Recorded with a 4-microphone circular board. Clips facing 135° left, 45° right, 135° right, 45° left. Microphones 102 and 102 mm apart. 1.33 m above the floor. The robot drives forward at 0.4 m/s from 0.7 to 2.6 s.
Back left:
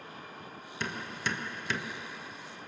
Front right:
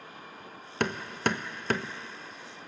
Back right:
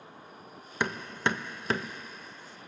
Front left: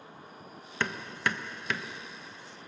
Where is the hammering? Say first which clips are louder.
Front right 7 dB, back right 2 dB; 60° right, 1.0 m; by 1.9 s 85° right, 0.9 m.